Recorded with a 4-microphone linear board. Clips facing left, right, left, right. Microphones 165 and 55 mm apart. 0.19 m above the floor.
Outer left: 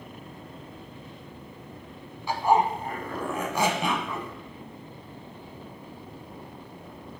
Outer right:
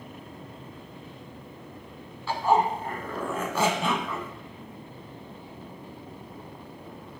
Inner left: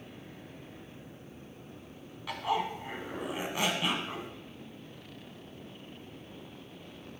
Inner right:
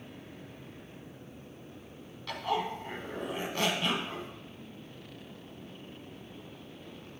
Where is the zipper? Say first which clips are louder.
Outer left 1 dB, inner left 1 dB; 15° left (ahead or behind), 0.9 m.